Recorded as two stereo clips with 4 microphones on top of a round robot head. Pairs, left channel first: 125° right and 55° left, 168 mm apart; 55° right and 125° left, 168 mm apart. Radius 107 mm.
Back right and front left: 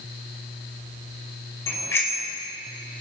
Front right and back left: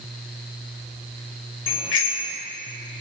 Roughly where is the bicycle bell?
Ahead right.